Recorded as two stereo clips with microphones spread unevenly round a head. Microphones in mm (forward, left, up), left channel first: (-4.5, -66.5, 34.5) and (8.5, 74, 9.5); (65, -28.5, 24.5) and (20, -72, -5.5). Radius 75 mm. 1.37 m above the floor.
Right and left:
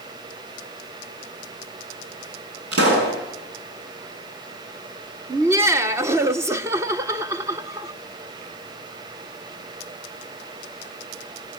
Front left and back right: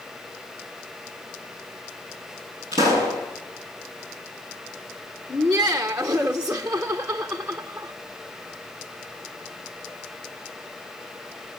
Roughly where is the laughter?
Behind left.